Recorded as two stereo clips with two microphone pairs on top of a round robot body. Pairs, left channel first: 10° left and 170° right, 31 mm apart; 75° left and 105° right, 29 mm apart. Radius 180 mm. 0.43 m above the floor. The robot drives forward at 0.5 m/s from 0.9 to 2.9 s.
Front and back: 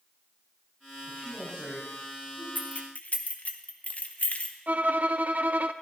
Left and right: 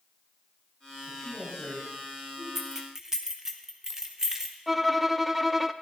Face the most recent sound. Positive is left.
turn(degrees=165)